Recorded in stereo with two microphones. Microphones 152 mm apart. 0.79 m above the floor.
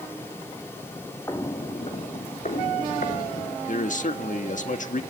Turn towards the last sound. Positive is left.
turn(degrees=55)  # may be behind; listen again after turning